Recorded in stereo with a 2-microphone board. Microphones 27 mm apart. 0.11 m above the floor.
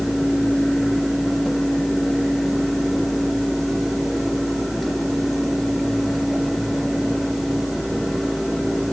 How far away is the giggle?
No giggle in this recording.